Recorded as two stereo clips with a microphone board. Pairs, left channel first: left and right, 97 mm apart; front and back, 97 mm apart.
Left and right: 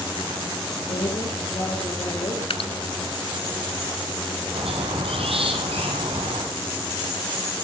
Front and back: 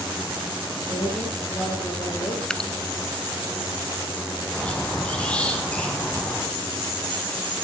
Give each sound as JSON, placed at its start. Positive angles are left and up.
{"t": 0.9, "sound": "a woman speaking", "azimuth_deg": 50, "distance_m": 5.5}
{"t": 2.5, "sound": "dripping", "azimuth_deg": 80, "distance_m": 0.8}
{"t": 4.5, "sound": "a squeak", "azimuth_deg": -80, "distance_m": 3.5}